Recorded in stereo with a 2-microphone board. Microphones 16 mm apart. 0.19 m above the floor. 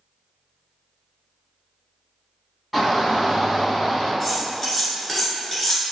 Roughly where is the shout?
Centre.